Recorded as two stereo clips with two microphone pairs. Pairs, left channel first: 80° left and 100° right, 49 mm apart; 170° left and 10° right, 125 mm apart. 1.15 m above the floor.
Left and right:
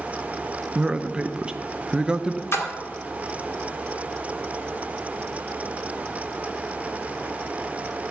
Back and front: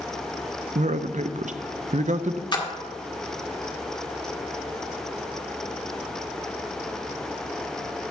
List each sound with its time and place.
0.8 s a man speaking: 30° right, 0.6 m
2.5 s a splash: 115° left, 1.5 m